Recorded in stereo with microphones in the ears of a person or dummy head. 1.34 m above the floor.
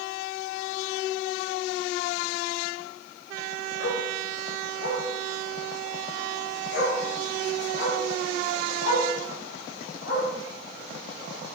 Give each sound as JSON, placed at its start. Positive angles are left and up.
{"t": 3.8, "sound": "a dog barking", "side_deg": 65, "distance_m": 4.5}